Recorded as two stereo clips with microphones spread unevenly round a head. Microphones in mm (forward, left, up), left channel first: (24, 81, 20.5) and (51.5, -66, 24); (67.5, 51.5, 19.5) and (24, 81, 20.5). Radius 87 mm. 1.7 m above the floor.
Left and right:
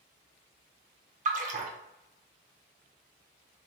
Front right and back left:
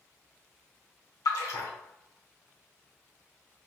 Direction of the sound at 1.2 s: 45° right.